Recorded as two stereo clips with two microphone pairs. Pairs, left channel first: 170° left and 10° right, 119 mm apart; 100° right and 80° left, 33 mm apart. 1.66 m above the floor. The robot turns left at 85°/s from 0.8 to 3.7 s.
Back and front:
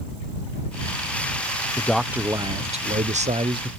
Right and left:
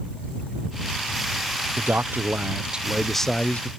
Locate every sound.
1.8 s a man speaking: 100° left; by 3.7 s 65° right